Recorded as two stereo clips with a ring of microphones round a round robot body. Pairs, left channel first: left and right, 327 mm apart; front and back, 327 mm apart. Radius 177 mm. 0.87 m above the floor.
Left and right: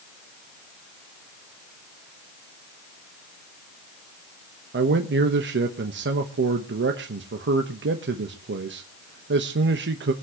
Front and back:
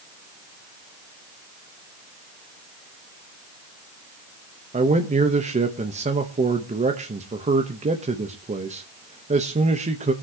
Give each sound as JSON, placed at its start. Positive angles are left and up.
{"t": 4.7, "sound": "a man speaking", "azimuth_deg": -120, "distance_m": 1.1}